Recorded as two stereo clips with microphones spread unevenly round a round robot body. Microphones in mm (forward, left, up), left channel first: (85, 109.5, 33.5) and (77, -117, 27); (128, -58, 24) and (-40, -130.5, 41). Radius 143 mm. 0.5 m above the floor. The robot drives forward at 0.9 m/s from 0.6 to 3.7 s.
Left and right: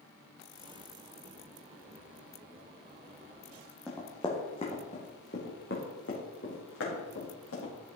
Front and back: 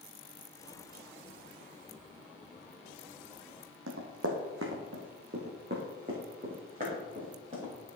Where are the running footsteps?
175° left, 1.6 m; by 7.7 s 130° left, 4 m.